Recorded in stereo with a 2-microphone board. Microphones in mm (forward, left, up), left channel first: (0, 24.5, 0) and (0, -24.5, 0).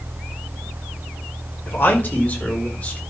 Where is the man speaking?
45° left (ahead or behind), 2.5 m; by 3.0 s 30° left (ahead or behind), 4 m.